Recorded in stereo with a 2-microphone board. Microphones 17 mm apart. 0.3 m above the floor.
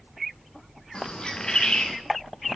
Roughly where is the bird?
Left.